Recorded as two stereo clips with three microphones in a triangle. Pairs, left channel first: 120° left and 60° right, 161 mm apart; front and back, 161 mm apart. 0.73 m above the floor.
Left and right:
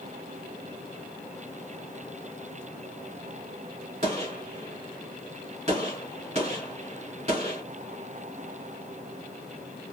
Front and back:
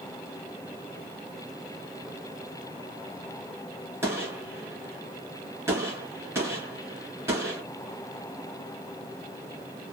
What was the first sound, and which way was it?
A gunshot, 105° right.